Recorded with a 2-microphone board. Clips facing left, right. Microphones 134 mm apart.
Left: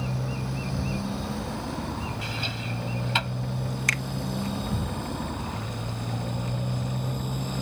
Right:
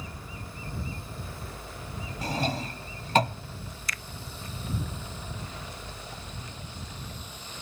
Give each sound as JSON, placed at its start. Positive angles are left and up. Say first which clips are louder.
{"t": 0.0, "sound": "a motorcycle", "louder": "left 11 dB", "side_deg": 70}
{"t": 2.2, "sound": "a drawer", "louder": "right 4 dB", "side_deg": -40}
{"t": 3.9, "sound": "a finger snap", "louder": "left 8 dB", "side_deg": 65}